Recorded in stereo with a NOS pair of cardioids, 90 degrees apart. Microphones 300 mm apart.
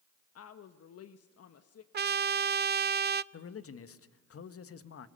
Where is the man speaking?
45° left, 1.6 m.